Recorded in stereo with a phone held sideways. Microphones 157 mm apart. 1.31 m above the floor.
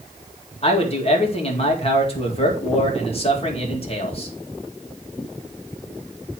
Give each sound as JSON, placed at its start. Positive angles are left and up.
{"t": 0.6, "sound": "a man speaking", "side_deg": 40, "distance_m": 2.0}